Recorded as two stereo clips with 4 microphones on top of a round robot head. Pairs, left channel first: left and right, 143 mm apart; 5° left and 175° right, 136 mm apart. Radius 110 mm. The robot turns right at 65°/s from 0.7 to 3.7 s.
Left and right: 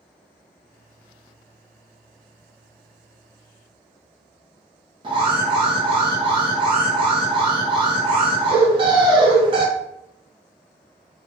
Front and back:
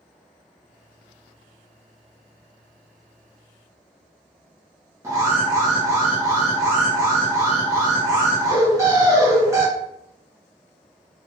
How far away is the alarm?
About 1.0 m.